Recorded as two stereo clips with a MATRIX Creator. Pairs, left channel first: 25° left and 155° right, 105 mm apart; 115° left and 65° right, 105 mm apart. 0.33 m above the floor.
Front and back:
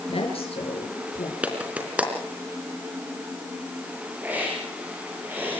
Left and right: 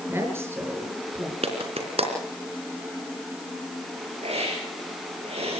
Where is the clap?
80° right, 3.5 m.